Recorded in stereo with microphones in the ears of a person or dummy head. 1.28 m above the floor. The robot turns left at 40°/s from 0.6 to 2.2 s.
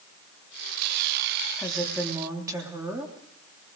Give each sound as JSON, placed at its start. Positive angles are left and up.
{"t": 1.6, "sound": "a woman speaking", "side_deg": 10, "distance_m": 3.0}